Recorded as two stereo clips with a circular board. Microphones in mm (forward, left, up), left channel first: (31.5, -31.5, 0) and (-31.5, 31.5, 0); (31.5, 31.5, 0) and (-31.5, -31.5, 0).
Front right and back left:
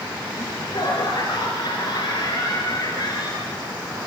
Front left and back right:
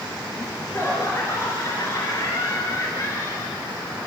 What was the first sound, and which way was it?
Laughter, 10° right.